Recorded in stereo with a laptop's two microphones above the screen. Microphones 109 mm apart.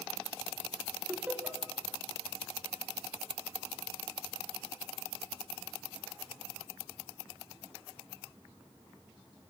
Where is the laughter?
15° right (ahead or behind), 4.5 m.